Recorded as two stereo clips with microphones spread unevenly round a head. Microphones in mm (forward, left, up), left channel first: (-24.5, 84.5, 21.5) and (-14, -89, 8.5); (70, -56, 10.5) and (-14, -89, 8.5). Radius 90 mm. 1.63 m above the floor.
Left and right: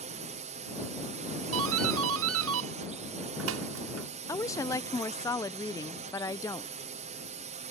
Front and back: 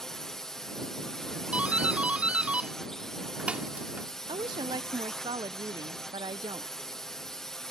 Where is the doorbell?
80° right.